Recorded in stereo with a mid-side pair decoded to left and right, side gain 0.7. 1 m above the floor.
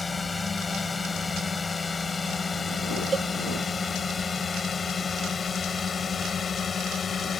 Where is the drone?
15° left; by 7.4 s 30° left.